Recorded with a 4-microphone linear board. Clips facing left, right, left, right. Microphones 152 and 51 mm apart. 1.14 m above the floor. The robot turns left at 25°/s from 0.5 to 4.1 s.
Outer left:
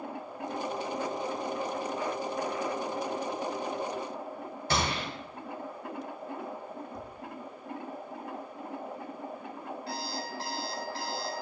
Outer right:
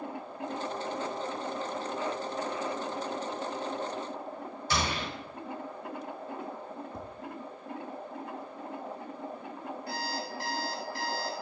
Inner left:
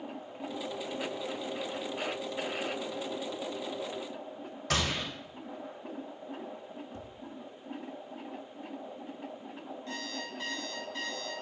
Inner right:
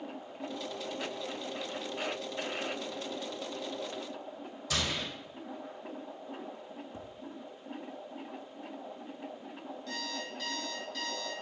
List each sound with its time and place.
4.7 s a gunshot: 65° left (ahead or behind), 3 m
6.9 s tapping: 25° right (ahead or behind), 0.8 m
9.9 s an alarm clock: 30° left (ahead or behind), 1.9 m